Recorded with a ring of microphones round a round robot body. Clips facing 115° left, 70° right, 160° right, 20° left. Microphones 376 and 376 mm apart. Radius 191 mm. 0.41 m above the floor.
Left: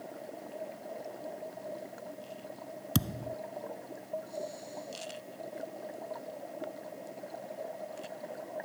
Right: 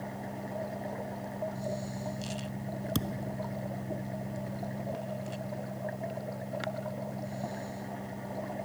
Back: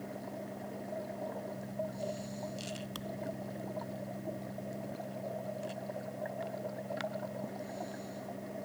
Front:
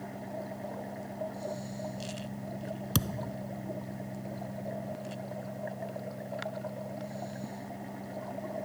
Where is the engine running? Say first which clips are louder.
Right 4 dB, front 2 dB; 50° right.